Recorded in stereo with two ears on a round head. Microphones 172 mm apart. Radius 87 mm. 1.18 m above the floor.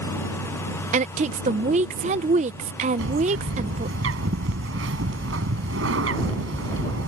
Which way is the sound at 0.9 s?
35° right (ahead or behind).